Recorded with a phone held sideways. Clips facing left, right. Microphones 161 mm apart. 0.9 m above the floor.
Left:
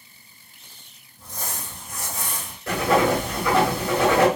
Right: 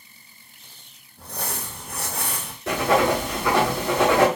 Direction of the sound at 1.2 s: 65° right (ahead or behind).